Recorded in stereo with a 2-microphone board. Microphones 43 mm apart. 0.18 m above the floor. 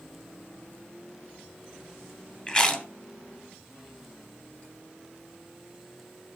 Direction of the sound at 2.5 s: 25° left (ahead or behind).